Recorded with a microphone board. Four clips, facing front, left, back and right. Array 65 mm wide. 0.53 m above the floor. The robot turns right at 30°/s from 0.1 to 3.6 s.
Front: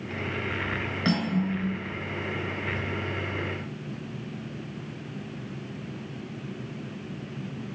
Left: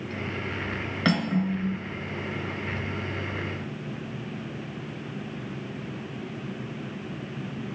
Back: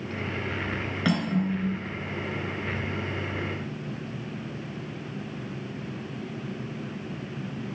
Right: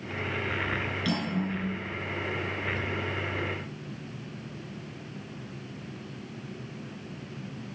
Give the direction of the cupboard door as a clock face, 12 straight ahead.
I don't hear a cupboard door.